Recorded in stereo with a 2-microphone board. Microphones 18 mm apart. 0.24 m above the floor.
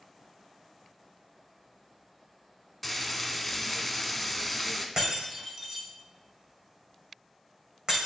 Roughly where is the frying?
Centre.